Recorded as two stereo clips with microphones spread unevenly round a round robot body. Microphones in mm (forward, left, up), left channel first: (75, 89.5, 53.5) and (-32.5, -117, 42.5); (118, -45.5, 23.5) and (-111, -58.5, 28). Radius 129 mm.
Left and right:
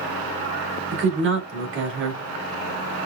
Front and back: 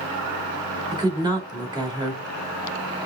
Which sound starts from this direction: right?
A woman speaking, at 0.9 s.